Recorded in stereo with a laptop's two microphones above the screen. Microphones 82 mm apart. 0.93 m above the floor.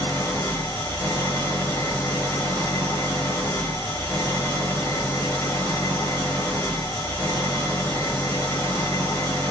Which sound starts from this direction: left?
An engine running, at 0.0 s.